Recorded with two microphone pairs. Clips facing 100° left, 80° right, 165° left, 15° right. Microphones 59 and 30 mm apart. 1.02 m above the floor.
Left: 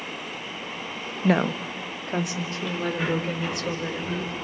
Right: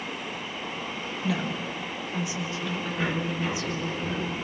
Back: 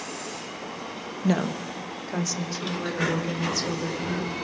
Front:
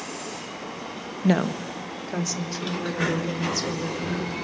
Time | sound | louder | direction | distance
1.2 | a woman speaking | left 8 dB, front 3 dB | 55° left | 0.6 m